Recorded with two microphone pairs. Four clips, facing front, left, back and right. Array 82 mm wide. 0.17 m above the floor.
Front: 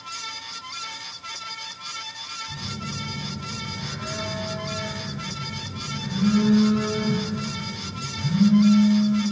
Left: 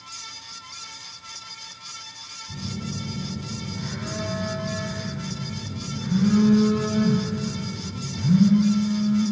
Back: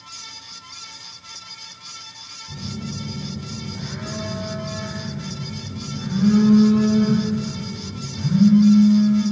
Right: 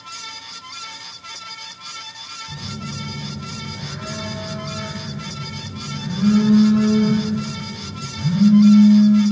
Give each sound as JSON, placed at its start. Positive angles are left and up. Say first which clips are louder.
{"t": 2.5, "sound": "a phone buzzing", "louder": "even, back 5 dB", "azimuth_deg": -115, "distance_m": 1.2}